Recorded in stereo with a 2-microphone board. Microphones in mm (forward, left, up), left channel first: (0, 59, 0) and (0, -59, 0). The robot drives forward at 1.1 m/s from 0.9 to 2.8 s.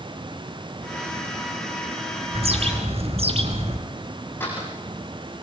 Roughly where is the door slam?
Centre.